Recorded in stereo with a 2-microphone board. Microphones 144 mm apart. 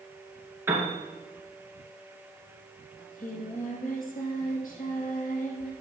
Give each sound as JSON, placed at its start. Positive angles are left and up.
{"t": 0.7, "sound": "a piano", "side_deg": -15, "distance_m": 2.5}
{"t": 3.0, "sound": "singing", "side_deg": 75, "distance_m": 2.5}